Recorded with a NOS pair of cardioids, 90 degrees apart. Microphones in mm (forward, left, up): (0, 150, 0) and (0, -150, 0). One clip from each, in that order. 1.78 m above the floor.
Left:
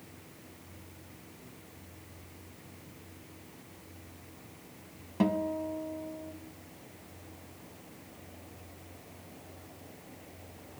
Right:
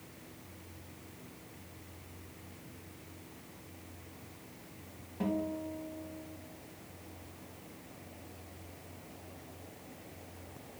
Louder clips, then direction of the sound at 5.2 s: Left 5 dB; 60° left.